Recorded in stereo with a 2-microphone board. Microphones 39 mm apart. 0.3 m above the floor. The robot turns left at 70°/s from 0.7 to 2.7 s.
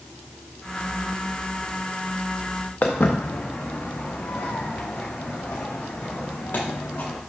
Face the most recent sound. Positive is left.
turn(degrees=50)  # may be behind; listen again after turning